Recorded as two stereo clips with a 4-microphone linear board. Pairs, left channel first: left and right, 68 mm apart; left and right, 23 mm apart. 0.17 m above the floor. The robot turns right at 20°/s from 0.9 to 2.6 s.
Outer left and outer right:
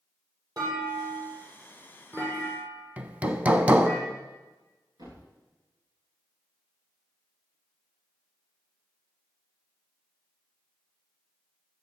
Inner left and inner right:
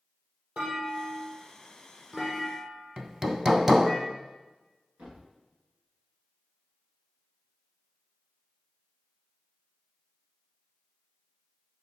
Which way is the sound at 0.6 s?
55° right (ahead or behind).